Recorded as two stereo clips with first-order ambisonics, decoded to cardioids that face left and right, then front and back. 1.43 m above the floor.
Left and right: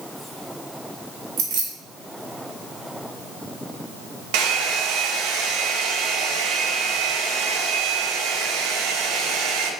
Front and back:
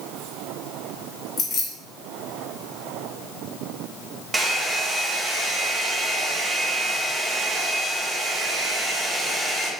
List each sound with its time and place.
1.4 s keys jangling: 55° right, 2 m
4.3 s a hair dryer: 100° right, 0.7 m